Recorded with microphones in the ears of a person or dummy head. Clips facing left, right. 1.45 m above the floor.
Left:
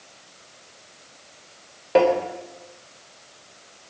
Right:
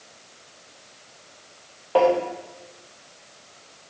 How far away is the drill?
I don't hear a drill.